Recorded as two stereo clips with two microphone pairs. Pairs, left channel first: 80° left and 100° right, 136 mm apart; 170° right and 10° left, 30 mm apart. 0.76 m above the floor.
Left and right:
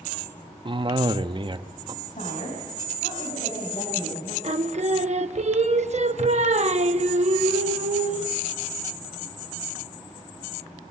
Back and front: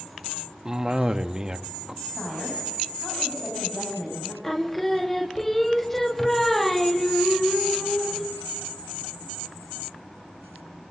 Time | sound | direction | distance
0.7 | a cough | 55° right | 0.8 m
2.0 | a woman speaking | 105° left | 5.5 m
4.4 | singing | 95° right | 0.9 m